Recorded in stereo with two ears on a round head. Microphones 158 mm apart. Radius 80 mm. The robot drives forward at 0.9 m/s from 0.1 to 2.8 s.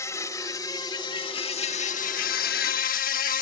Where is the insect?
15° left (ahead or behind); by 3.4 s 55° left (ahead or behind).